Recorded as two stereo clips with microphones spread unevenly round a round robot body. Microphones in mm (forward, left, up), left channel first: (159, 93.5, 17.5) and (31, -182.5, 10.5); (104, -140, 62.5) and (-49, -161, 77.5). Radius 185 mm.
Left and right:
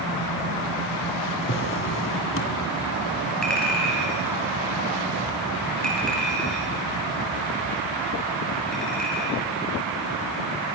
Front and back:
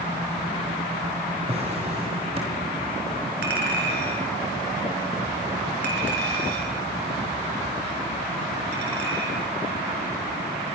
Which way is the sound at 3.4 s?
155° left.